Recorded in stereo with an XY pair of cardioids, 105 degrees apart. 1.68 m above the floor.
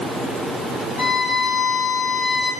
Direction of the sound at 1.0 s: 55° left.